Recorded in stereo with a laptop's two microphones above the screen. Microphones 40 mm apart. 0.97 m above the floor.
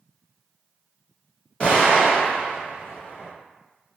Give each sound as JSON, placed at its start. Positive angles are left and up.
{"t": 1.6, "sound": "an explosion", "side_deg": 35, "distance_m": 1.3}